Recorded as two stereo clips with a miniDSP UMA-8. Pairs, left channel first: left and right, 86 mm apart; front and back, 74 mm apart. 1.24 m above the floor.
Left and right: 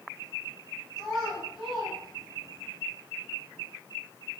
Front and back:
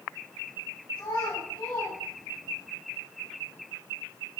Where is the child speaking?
Straight ahead, 3.5 m.